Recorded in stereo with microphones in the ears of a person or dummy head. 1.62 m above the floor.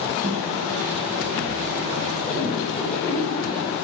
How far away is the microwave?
About 1.5 m.